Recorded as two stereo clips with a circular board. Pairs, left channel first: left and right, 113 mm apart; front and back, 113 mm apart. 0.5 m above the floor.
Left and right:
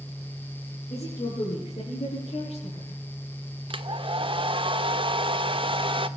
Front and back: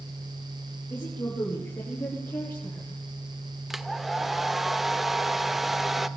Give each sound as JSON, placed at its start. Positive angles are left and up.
{"t": 0.9, "sound": "a woman speaking", "azimuth_deg": 65, "distance_m": 8.0}
{"t": 3.7, "sound": "a hair dryer", "azimuth_deg": -95, "distance_m": 1.0}